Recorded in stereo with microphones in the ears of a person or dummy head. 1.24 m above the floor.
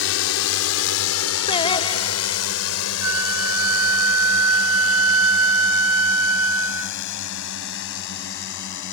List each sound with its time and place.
0.0 s a drone: 70° left (ahead or behind); by 8.9 s 65° left (ahead or behind)
1.5 s singing: 30° left (ahead or behind)
3.0 s a flute: 80° right